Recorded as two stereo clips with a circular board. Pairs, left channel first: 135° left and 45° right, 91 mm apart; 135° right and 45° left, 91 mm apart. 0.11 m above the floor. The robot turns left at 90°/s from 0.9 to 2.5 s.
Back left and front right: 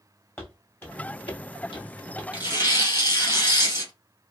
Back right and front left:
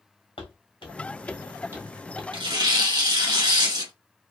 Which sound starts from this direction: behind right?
Footsteps, at 0.4 s.